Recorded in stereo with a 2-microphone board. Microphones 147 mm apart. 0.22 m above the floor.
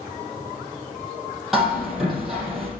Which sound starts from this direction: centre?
Hammering, at 1.5 s.